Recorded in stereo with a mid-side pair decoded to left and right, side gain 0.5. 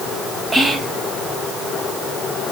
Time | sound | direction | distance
0.5 | whispering | 15° right | 1.1 m